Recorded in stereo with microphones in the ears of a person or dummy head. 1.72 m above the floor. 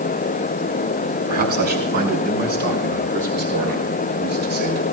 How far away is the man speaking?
About 4 m.